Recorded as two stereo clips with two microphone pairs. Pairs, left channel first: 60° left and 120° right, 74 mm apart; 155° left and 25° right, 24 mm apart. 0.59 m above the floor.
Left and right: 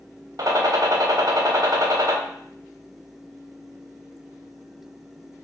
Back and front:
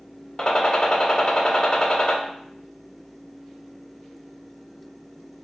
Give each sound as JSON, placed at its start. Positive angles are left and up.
{"t": 0.4, "sound": "a gunshot", "azimuth_deg": -150, "distance_m": 0.8}